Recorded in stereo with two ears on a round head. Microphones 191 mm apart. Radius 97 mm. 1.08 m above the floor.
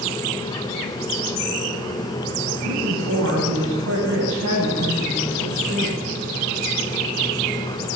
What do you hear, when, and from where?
2.6 s a woman speaking: 75° right (ahead or behind), 8.5 m